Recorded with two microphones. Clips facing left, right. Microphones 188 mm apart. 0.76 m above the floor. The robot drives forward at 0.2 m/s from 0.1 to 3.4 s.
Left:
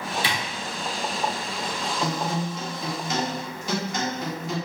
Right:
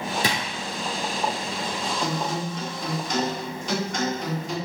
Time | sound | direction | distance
0.2 | a drawer | 45° right (ahead or behind) | 0.5 m
2.0 | a guitar | 5° left (ahead or behind) | 1.3 m